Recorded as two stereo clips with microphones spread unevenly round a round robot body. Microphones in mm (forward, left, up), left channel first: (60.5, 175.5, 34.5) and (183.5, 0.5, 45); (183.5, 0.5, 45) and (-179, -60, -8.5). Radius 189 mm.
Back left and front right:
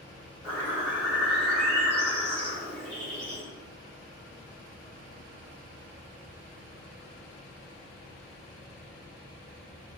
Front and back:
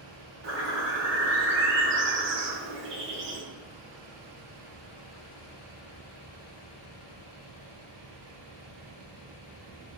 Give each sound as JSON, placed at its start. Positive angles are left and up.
{"t": 0.4, "sound": "a bird", "azimuth_deg": -120, "distance_m": 2.5}